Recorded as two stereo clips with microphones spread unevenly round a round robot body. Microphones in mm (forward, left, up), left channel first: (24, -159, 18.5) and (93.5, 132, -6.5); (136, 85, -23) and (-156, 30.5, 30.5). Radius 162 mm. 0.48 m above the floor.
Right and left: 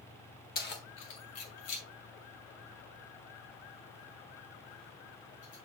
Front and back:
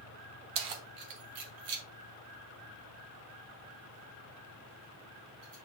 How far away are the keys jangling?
About 1.1 m.